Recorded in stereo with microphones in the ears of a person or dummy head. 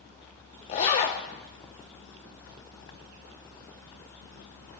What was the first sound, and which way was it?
A zipper, 35° left (ahead or behind).